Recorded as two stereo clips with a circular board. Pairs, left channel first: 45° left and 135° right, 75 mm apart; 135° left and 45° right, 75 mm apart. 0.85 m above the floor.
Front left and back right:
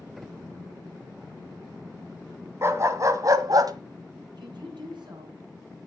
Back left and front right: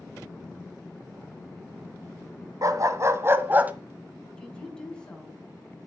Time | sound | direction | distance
2.6 | a dog barking | 80° right | 1.5 m
4.4 | a woman speaking | 145° right | 5.5 m